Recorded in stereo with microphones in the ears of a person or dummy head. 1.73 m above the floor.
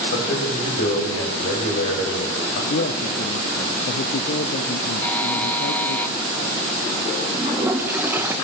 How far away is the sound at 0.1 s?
About 9 m.